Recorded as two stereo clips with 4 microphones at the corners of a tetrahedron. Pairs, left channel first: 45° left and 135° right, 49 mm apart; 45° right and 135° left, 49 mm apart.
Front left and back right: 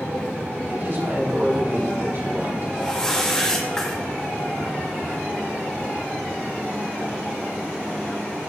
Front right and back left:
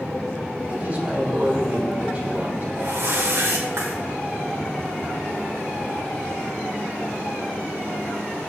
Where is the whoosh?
120° left, 2 m.